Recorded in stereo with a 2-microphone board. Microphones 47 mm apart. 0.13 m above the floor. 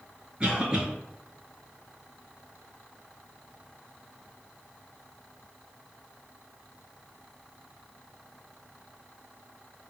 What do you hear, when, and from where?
0.4 s a cough: 20° right (ahead or behind), 1.9 m